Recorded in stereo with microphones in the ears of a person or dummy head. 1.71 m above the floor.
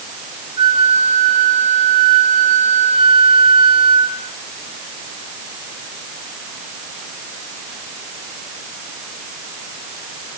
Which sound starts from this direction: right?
A flute, at 0.6 s.